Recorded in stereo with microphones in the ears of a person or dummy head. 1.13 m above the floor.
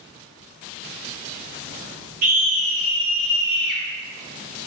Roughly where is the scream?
Right.